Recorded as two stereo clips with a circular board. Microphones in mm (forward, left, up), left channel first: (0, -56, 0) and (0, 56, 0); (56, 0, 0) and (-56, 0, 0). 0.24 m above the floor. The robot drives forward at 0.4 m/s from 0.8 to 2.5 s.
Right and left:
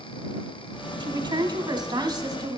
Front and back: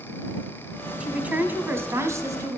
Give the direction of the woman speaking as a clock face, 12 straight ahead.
9 o'clock.